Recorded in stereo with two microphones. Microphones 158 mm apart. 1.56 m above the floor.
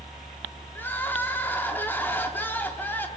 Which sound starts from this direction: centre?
Crying, at 0.8 s.